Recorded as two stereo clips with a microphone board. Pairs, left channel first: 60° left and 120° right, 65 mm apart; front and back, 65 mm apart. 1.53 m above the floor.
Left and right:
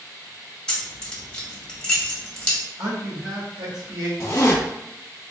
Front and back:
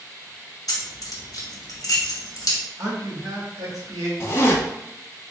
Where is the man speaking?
145° right, 1.5 m.